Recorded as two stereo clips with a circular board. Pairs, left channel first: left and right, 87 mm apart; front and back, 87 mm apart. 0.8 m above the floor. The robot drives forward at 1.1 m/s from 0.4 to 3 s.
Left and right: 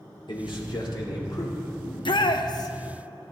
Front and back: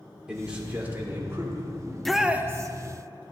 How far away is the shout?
About 0.9 m.